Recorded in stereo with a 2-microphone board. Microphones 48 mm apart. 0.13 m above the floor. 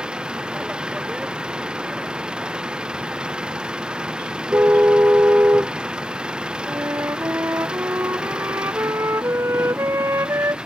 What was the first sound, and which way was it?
An engine running, 15° right (ahead or behind).